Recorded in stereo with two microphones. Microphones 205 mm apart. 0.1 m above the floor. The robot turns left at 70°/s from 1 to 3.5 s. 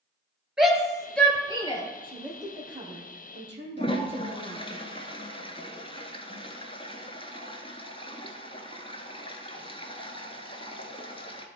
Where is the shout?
5° right (ahead or behind), 1.7 m; by 1.8 s 30° left (ahead or behind), 1.7 m.